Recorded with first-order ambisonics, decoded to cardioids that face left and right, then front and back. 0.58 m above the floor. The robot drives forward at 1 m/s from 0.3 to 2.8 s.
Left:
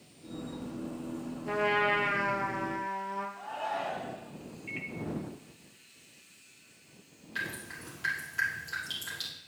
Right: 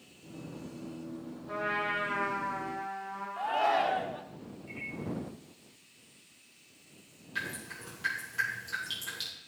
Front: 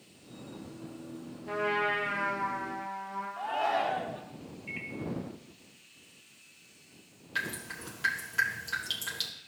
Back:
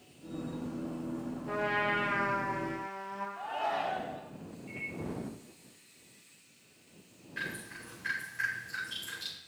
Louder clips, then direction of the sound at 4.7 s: Left 2 dB, front 1 dB; 50° left.